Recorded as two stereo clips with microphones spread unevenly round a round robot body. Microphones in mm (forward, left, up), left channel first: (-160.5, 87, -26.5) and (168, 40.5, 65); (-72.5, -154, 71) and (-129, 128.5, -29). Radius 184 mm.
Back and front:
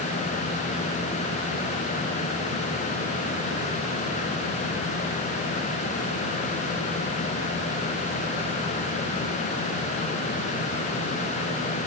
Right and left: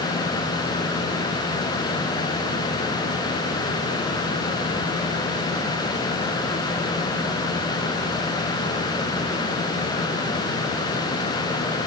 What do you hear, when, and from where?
Only background noise.